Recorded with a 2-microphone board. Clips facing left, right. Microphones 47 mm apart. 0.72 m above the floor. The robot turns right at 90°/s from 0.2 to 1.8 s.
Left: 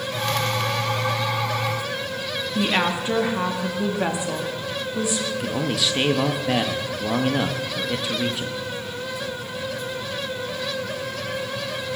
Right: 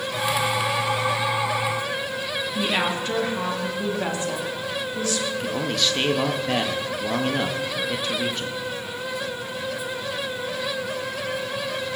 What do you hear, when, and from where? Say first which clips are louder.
2.5 s a woman speaking: left 3 dB; 15° left (ahead or behind), 1.5 m
5.3 s a man speaking: left 1 dB; 5° left (ahead or behind), 1.1 m